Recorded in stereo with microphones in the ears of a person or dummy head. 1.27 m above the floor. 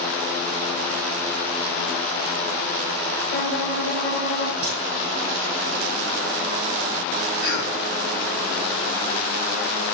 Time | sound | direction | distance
3.3 | a violin | 60° left (ahead or behind) | 1.3 m
4.6 | a crack | 35° left (ahead or behind) | 4.5 m
7.4 | a cough | 60° left (ahead or behind) | 4 m